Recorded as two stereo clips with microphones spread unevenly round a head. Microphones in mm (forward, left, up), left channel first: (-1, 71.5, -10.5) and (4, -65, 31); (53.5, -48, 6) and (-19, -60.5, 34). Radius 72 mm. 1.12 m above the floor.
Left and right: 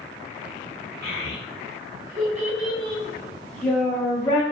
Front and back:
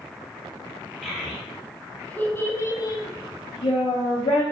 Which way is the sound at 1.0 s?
85° right.